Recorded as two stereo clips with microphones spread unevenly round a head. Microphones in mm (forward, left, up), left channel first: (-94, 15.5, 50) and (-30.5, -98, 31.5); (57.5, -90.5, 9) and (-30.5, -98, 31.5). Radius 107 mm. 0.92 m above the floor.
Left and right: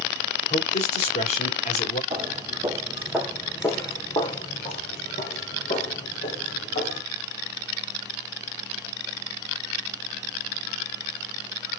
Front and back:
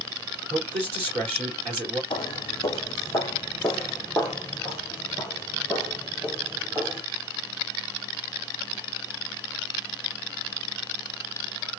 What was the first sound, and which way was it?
A man speaking, 150° left.